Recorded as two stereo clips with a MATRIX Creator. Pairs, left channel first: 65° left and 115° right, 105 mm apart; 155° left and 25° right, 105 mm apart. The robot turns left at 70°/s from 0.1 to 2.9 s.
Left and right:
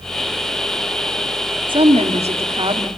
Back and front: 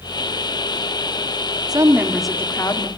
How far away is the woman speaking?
About 1.8 m.